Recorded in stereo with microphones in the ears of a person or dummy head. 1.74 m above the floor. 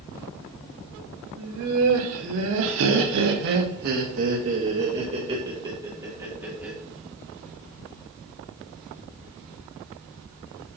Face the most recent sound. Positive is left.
turn(degrees=-15)  # may be behind; listen again after turning